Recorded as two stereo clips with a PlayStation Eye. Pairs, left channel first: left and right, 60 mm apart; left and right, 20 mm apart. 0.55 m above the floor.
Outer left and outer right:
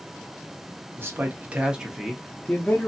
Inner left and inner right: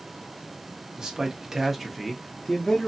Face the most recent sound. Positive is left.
turn(degrees=30)  # may be behind; listen again after turning